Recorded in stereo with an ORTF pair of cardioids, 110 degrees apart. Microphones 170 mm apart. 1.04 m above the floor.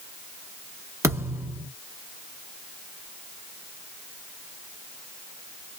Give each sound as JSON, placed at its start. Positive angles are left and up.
{"t": 1.0, "sound": "a thud", "azimuth_deg": -15, "distance_m": 1.1}